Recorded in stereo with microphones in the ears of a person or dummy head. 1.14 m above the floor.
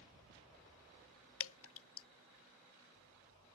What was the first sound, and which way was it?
Dripping, 65° left (ahead or behind).